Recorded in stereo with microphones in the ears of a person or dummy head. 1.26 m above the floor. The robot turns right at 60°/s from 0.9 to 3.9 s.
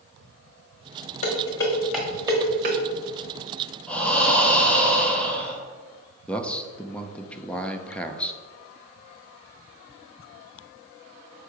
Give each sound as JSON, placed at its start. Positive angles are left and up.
{"t": 1.2, "sound": "dishes clattering", "side_deg": 35, "distance_m": 1.2}
{"t": 3.9, "sound": "breathing", "side_deg": 5, "distance_m": 1.0}
{"t": 6.3, "sound": "a man speaking", "side_deg": 5, "distance_m": 0.5}